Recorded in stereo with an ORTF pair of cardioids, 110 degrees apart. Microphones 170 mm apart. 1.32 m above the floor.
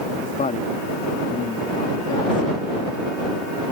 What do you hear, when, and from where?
0.2 s a woman speaking: 50° left